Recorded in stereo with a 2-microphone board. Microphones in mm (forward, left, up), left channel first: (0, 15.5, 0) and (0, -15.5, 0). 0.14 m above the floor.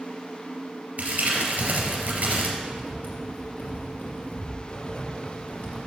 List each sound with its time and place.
1.0 s crumpling: 50° right (ahead or behind), 2.5 m
2.6 s writing: 65° left (ahead or behind), 4 m